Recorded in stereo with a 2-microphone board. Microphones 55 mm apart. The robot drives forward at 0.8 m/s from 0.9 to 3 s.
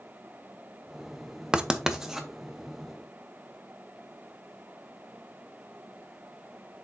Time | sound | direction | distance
1.5 | writing | 15° right (ahead or behind) | 0.6 m